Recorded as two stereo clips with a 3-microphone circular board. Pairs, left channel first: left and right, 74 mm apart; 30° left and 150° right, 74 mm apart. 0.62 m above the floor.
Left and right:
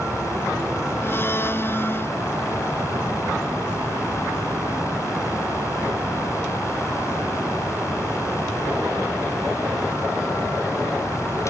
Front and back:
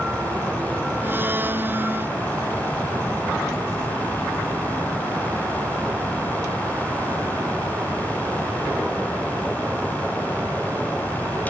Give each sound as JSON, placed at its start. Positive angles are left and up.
{"t": 1.0, "sound": "a blender", "azimuth_deg": 145}